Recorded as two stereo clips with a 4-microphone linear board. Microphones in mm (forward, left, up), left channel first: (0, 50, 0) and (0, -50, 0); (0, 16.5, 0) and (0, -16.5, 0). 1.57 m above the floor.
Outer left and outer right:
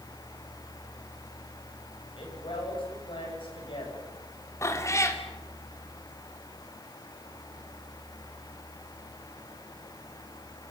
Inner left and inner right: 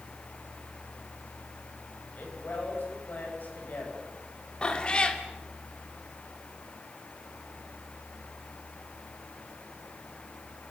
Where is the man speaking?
60° left (ahead or behind), 9 m.